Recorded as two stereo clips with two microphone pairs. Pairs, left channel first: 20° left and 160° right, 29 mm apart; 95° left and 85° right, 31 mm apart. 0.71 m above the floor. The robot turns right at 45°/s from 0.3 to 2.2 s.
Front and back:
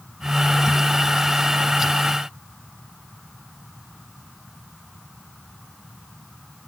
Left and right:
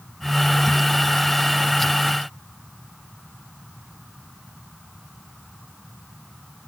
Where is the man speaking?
No man speaking in this recording.